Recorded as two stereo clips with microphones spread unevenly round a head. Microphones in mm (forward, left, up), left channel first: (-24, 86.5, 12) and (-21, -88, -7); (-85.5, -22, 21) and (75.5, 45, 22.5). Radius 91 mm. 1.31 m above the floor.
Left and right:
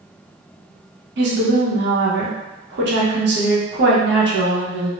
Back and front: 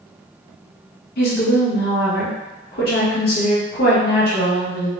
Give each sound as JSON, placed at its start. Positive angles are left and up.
{"t": 1.2, "sound": "a woman speaking", "azimuth_deg": -115, "distance_m": 0.9}